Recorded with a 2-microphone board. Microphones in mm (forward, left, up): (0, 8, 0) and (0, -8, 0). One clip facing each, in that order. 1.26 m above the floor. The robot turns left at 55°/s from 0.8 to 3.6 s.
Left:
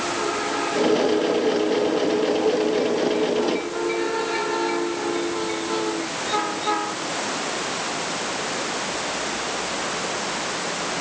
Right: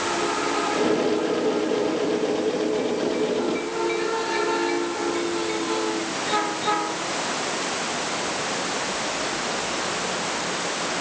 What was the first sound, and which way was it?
Only background noise.